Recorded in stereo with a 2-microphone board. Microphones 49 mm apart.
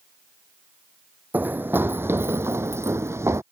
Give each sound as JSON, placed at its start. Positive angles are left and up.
{"t": 1.3, "sound": "running footsteps", "side_deg": -40}